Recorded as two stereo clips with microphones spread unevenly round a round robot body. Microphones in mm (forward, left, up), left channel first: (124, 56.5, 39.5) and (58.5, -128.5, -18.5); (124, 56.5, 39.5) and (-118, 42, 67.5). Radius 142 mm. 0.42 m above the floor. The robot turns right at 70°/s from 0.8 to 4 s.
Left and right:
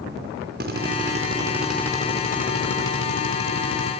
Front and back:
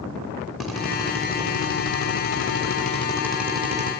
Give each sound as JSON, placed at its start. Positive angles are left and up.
{"t": 0.6, "sound": "a drill", "azimuth_deg": -85, "distance_m": 5.0}